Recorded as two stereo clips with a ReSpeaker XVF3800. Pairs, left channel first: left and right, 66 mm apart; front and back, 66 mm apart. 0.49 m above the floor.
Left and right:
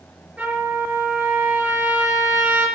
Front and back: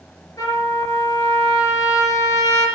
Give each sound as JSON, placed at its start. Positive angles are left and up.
{"t": 0.4, "sound": "a trumpet", "azimuth_deg": -20, "distance_m": 7.0}